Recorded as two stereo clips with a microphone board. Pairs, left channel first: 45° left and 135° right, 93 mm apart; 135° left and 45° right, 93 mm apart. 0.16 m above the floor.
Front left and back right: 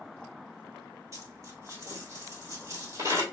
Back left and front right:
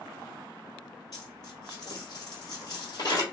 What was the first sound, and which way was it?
A dropped coin, 175° left.